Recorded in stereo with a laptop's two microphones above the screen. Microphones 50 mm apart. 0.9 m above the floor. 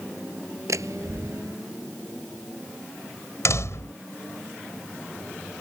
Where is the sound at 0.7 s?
85° right.